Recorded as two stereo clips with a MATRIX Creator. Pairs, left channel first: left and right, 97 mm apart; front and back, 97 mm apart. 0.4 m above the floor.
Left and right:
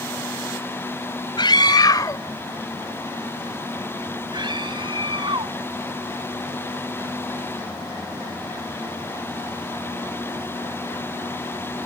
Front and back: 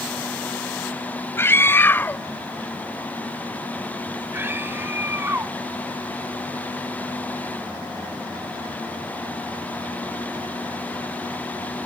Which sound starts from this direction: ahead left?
A scream, at 1.4 s.